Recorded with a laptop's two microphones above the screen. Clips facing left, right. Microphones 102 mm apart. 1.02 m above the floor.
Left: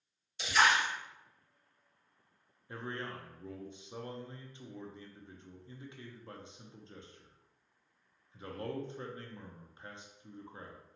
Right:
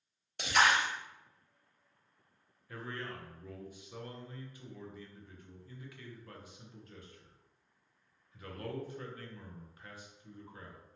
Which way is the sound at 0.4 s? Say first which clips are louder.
Even; 65° right (ahead or behind).